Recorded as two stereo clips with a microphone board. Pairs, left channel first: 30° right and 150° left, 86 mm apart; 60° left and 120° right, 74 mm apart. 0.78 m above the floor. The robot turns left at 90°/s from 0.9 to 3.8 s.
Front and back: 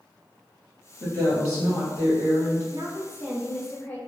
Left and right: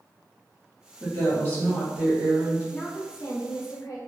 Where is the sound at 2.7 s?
130° left, 0.8 m; by 4.0 s 35° left, 0.8 m.